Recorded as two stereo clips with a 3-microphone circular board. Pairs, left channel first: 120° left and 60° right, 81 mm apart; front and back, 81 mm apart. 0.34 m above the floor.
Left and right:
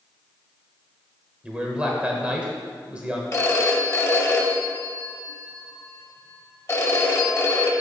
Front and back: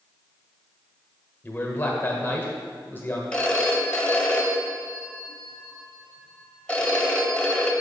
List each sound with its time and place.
1.4 s a man speaking: 5° right, 1.3 m
3.3 s a phone ringing: 70° left, 0.9 m